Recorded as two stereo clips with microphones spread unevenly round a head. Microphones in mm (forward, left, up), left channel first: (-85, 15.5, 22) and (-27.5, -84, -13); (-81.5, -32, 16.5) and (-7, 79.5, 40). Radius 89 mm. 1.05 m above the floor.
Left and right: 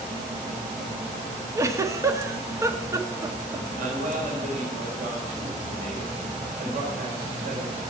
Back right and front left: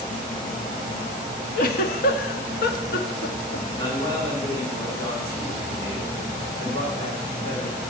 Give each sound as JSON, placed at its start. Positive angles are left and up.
{"t": 1.6, "sound": "a giggle", "azimuth_deg": -125, "distance_m": 1.2}
{"t": 3.8, "sound": "a man speaking", "azimuth_deg": -55, "distance_m": 3.5}